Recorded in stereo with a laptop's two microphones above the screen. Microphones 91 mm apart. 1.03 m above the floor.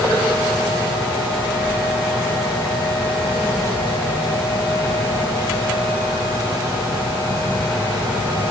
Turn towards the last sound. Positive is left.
No sound to turn to.